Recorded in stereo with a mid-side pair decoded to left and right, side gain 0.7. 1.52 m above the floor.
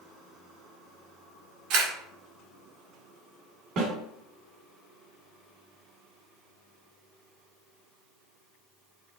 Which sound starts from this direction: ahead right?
A snare drum, at 3.8 s.